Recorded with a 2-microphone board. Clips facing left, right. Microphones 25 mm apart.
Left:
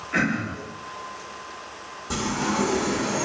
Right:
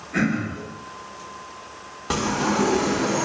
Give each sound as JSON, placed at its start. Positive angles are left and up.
{"t": 0.1, "sound": "throat clearing", "side_deg": 70, "distance_m": 1.7}
{"t": 2.1, "sound": "a sliding door", "side_deg": -70, "distance_m": 0.9}